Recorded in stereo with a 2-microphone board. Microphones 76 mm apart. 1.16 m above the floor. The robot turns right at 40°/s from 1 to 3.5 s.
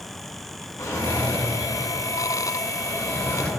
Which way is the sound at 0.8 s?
60° left.